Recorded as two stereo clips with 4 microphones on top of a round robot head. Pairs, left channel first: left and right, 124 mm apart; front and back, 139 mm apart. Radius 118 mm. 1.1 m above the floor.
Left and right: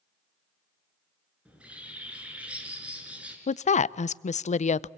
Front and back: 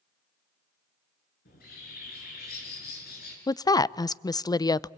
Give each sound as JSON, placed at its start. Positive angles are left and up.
{"t": 1.4, "sound": "a bird", "azimuth_deg": -10, "distance_m": 5.0}
{"t": 3.5, "sound": "a woman speaking", "azimuth_deg": 65, "distance_m": 0.5}